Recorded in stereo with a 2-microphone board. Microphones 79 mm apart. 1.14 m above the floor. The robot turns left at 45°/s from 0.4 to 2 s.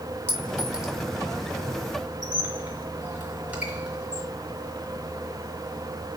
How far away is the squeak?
About 4 m.